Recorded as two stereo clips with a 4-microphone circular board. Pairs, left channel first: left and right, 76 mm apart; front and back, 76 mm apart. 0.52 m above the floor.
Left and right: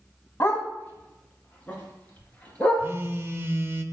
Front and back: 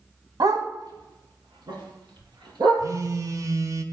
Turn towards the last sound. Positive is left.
turn(degrees=-145)